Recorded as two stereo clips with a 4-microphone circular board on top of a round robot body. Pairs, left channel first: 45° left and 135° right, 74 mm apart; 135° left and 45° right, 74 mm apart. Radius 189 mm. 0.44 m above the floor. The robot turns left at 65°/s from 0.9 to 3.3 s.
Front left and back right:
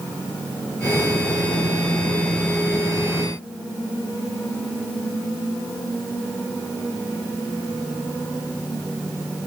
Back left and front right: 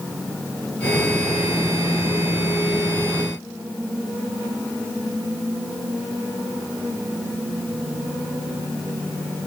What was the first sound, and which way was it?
Only background noise.